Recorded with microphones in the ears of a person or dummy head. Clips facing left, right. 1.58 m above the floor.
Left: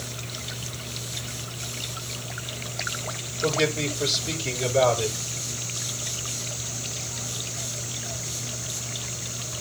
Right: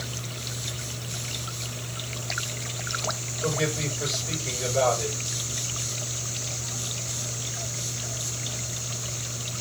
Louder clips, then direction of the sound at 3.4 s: Left 3 dB; 40° left (ahead or behind).